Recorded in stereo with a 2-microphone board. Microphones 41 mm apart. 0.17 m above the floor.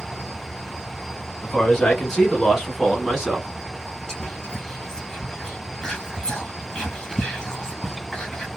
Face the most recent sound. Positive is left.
turn(degrees=20)  # may be behind; listen again after turning